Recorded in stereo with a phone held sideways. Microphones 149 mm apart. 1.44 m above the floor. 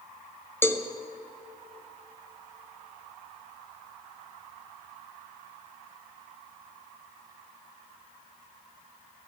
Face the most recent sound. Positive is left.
turn(degrees=15)  # may be behind; listen again after turning